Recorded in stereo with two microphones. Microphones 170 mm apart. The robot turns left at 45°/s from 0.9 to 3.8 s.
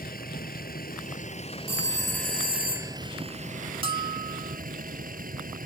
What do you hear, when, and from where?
0.0 s a vehicle: 70° left; by 5.7 s 65° right
1.7 s a phone ringing: 40° right; by 3.0 s 100° right
3.8 s a bell: 35° right (ahead or behind)